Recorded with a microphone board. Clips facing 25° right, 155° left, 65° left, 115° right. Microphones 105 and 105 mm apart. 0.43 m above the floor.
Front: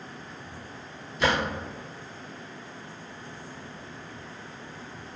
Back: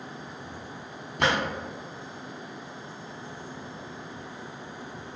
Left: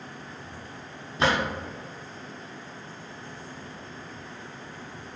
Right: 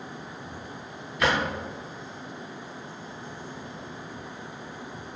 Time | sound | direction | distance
1.2 | a drawer | 130° left | 1.0 m